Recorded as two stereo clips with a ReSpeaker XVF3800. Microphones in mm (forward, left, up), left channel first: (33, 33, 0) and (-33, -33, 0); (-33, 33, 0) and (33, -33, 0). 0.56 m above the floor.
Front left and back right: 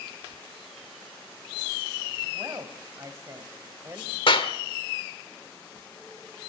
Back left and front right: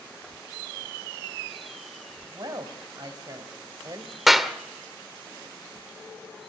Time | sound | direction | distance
2.3 | a woman speaking | 80° right | 3.5 m
4.3 | a clap | 45° left | 1.6 m